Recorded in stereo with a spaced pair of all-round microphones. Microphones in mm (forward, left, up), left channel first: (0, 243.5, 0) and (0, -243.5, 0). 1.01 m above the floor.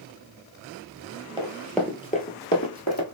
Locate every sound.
1.4 s running footsteps: 10° right (ahead or behind), 1.1 m; by 3.0 s 35° left (ahead or behind), 1.3 m